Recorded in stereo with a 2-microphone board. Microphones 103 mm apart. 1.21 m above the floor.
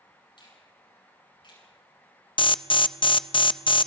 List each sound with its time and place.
0.4 s a finger snap: 50° left (ahead or behind), 9.5 m
2.4 s an alarm: 55° left (ahead or behind), 0.6 m